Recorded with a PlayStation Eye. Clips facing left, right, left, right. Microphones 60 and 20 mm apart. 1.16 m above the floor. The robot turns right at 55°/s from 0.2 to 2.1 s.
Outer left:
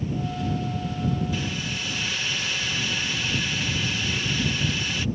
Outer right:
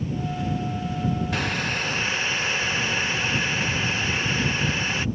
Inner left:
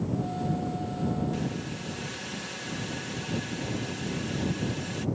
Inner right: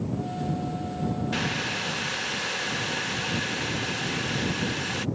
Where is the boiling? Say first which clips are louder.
Outer right 4 dB, inner right 6 dB; 80° right; by 5.1 s 40° right.